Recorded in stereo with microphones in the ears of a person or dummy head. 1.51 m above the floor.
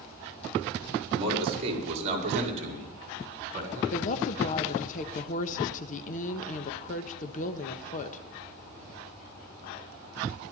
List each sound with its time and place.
1.1 s a man speaking: 35° right (ahead or behind), 4.5 m; by 3.8 s 50° right (ahead or behind), 5.5 m
3.9 s a woman speaking: 45° left (ahead or behind), 1.2 m